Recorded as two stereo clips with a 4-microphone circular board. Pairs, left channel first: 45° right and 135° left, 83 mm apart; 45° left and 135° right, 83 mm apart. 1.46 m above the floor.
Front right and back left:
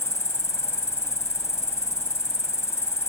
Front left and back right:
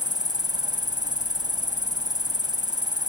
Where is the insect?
100° right.